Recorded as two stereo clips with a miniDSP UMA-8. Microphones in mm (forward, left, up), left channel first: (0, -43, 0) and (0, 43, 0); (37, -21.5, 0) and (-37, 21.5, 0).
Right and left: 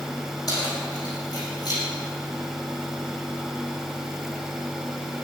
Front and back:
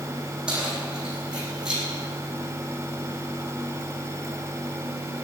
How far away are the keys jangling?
About 6 m.